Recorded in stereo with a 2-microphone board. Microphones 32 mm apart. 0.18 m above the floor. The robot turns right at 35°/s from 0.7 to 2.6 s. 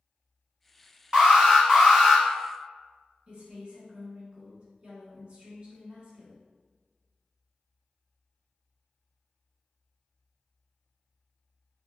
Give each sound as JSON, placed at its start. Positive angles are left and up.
{"t": 1.1, "sound": "an alarm", "azimuth_deg": -45, "distance_m": 1.1}
{"t": 3.3, "sound": "a woman speaking", "side_deg": -30, "distance_m": 1.4}